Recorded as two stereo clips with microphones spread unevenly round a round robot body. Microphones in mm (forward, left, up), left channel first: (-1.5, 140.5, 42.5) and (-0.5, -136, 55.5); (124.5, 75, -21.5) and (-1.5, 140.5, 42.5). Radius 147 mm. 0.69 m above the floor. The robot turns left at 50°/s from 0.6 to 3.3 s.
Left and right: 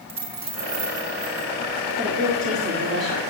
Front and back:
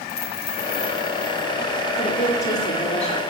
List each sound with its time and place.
0.1 s a dropped coin: 20° right, 3 m; by 1.5 s 65° right, 3 m
2.0 s a woman speaking: 5° right, 2 m; by 3.2 s 65° right, 2 m